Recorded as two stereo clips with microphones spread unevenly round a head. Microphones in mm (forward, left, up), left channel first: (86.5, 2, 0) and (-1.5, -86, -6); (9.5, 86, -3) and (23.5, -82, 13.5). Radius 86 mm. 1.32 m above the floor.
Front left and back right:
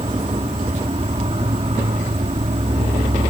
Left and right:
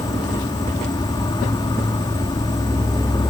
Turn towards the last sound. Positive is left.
turn(degrees=165)